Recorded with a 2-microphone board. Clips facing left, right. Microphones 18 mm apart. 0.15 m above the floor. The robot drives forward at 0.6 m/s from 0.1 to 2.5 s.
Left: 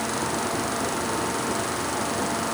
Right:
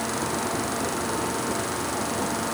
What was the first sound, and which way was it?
Only background noise.